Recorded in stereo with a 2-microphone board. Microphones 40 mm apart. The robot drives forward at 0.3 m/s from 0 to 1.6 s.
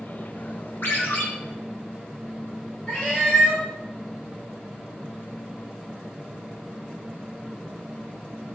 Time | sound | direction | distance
0.8 | a ringtone | 70° left (ahead or behind) | 0.7 m
2.9 | a cat meowing | 30° left (ahead or behind) | 0.9 m